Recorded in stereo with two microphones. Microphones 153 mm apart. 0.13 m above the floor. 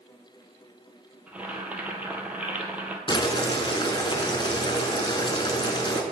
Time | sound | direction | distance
1.3 | boiling | 10° right (ahead or behind) | 0.8 m
3.1 | boiling | 30° left (ahead or behind) | 0.8 m